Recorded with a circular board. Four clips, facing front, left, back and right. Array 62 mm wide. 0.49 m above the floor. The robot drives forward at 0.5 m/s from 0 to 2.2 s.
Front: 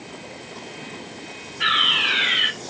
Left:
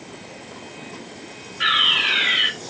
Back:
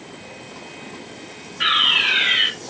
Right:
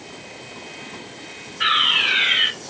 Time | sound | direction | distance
1.6 | a fire alarm | 165° left | 1.9 m